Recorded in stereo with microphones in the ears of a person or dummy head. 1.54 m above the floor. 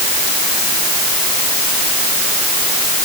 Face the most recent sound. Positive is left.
No sound to turn to.